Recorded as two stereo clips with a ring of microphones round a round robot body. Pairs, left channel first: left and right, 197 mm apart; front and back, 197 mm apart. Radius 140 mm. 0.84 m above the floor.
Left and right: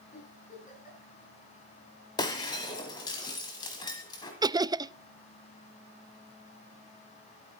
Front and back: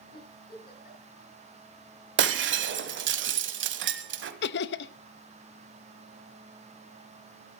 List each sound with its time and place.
0.1 s a giggle: 40° left, 7 m
2.2 s breaking glass: 165° left, 1.3 m
4.4 s laughter: 20° right, 0.5 m